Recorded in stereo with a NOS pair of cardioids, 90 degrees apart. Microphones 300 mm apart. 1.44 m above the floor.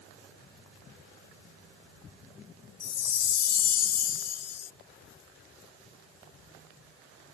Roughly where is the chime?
Ahead left.